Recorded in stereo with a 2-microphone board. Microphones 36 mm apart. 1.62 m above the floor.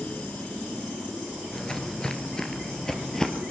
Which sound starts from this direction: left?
Footsteps, at 1.5 s.